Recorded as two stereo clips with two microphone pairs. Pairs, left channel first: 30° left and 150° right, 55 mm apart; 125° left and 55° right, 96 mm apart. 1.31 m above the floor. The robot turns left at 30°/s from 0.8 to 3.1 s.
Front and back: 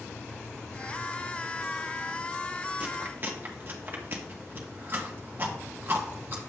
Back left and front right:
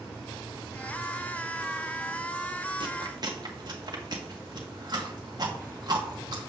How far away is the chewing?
About 1.4 m.